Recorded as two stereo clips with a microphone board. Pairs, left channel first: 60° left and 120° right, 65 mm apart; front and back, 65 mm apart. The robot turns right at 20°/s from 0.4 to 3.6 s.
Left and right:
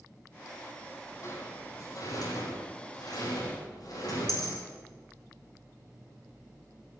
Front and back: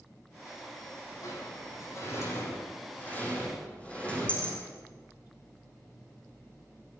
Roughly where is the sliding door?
Ahead left.